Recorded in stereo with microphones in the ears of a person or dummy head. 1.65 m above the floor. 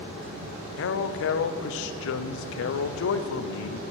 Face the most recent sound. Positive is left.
turn(degrees=70)  # may be behind; listen again after turning